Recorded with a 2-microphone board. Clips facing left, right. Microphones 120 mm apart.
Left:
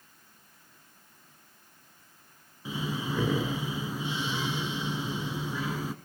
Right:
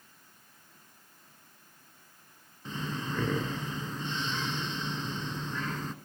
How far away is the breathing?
About 1.2 m.